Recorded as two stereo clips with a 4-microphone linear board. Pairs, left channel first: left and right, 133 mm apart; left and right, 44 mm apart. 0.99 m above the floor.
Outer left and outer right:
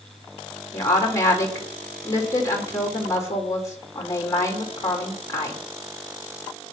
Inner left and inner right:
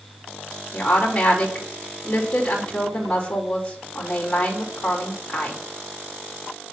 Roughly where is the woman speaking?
Left.